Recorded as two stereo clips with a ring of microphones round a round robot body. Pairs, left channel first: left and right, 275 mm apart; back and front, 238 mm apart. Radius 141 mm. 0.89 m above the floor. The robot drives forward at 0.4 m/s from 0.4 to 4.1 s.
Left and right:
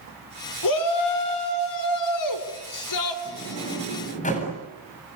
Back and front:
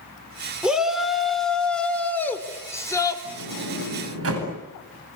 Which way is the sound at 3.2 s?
25° left.